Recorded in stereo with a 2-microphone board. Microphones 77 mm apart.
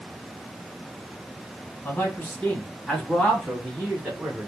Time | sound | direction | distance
1.9 | a man speaking | 25° left (ahead or behind) | 1.4 m